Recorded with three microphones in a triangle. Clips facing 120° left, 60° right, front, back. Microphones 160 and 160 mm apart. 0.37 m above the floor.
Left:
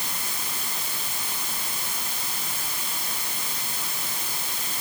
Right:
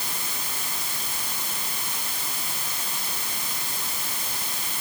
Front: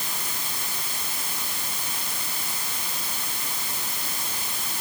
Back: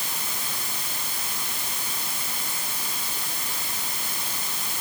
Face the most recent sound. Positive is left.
No sound to turn to.